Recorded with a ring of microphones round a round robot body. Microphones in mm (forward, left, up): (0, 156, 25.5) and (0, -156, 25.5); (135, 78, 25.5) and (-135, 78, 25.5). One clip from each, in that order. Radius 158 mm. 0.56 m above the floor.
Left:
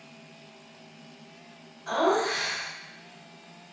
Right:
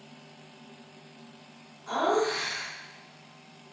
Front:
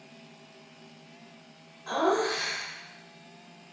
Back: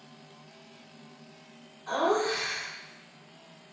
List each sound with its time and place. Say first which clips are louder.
1.9 s laughter: left 2 dB, even; 40° left, 2 m